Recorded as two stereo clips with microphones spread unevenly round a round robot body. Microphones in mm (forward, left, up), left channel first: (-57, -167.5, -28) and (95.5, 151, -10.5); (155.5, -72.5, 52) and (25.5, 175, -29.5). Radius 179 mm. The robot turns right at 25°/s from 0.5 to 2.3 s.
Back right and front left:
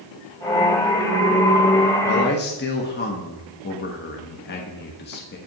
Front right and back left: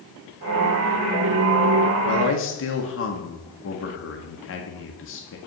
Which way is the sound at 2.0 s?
110° right.